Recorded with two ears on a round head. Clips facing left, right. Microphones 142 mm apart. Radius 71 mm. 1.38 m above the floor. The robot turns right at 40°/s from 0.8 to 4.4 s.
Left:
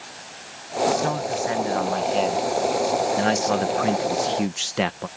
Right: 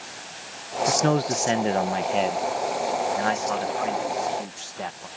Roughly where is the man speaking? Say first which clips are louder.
Right 2 dB; ahead right.